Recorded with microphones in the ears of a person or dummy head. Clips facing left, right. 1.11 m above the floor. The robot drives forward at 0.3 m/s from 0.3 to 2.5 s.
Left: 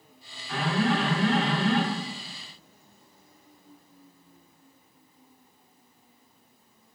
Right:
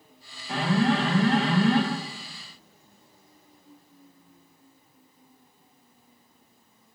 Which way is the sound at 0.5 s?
35° right (ahead or behind).